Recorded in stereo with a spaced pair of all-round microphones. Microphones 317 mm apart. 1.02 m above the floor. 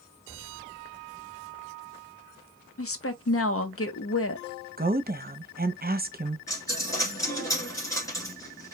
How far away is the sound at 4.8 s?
About 0.6 m.